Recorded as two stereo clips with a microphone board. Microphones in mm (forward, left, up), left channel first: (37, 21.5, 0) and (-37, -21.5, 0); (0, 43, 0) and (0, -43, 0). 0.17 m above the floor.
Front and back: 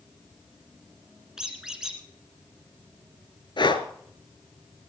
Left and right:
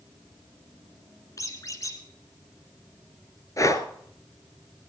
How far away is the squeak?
About 1.7 m.